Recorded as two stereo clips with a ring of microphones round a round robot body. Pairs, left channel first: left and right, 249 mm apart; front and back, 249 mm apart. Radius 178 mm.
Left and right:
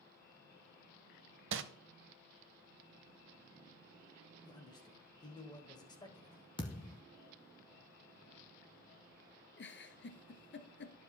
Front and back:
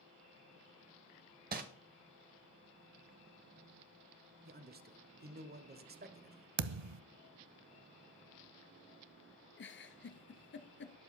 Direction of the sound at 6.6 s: 165° left.